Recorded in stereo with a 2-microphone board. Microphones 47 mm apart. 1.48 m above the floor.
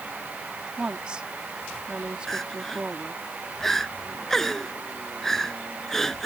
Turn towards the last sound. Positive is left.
turn(degrees=10)  # may be behind; listen again after turning